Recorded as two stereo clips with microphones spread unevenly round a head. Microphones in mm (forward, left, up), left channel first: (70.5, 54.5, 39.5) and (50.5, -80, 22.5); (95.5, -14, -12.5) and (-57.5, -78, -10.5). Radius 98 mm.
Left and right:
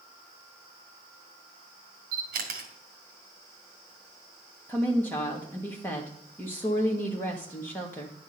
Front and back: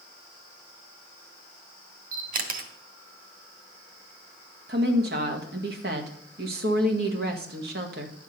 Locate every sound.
2.1 s a camera shutter: 130° right, 1.8 m
4.7 s a woman speaking: 160° left, 1.6 m